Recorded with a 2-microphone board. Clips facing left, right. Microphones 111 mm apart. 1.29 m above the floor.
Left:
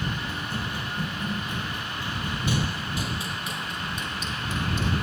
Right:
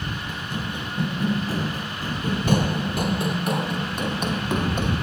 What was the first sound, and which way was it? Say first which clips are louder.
Running footsteps: right 2 dB; 15° right (ahead or behind).